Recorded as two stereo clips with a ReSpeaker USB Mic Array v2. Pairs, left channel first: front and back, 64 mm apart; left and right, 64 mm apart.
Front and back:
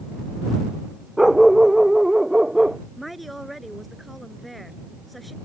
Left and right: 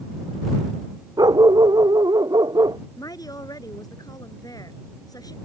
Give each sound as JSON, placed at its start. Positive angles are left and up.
{"t": 1.2, "sound": "a dog barking", "azimuth_deg": -95}
{"t": 3.0, "sound": "a woman speaking", "azimuth_deg": 90}